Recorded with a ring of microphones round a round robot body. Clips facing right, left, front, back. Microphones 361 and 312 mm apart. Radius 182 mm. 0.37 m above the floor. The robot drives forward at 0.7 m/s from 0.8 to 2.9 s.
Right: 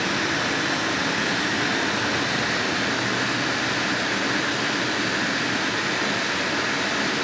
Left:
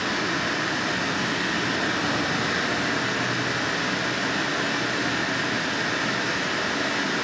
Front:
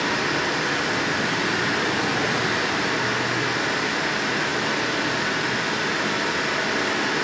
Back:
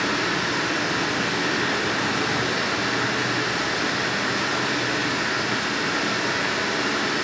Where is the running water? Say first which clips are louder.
Right 1 dB, even; 90° right, 3.5 m; by 7.2 s 115° right, 4 m.